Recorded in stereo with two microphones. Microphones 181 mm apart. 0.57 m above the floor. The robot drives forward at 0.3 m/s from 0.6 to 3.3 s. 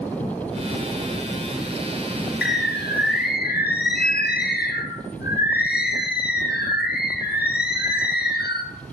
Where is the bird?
70° left (ahead or behind), 0.6 m; by 8.7 s 60° left (ahead or behind), 0.6 m.